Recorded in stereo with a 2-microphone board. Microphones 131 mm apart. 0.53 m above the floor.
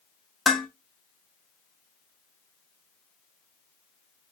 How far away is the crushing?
No crushing in this recording.